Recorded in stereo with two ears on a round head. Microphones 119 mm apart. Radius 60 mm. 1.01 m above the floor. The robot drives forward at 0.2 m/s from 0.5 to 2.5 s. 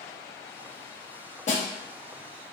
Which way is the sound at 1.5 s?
55° left (ahead or behind).